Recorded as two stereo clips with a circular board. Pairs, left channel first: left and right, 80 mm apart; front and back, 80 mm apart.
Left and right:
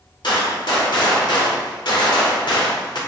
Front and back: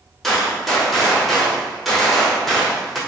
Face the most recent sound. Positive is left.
turn(degrees=90)